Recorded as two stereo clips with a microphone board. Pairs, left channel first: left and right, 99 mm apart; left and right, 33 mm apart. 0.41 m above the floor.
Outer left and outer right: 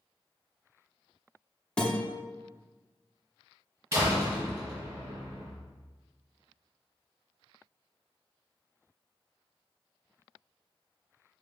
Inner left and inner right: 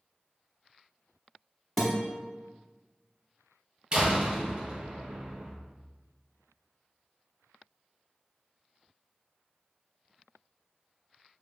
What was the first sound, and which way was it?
A guitar, 10° left (ahead or behind).